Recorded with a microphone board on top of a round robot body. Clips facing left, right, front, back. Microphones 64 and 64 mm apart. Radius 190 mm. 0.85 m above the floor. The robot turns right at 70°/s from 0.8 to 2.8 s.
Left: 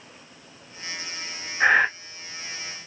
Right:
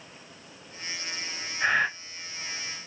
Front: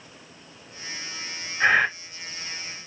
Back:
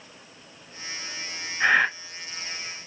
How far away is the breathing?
About 2 m.